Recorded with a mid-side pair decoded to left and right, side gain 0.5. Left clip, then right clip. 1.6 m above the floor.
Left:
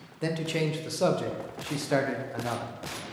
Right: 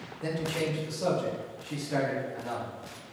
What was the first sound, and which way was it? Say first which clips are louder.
A man speaking: left 2 dB; 60° left.